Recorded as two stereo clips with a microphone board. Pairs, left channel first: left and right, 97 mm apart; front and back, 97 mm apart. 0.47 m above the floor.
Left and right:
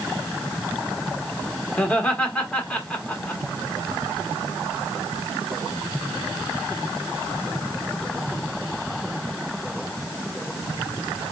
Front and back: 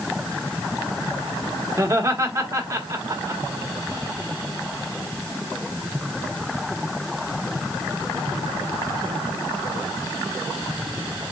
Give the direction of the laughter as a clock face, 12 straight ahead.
7 o'clock.